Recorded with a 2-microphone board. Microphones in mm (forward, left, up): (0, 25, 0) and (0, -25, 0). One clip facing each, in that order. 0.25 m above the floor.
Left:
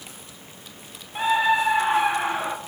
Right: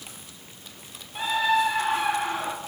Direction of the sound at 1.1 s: 20° left (ahead or behind).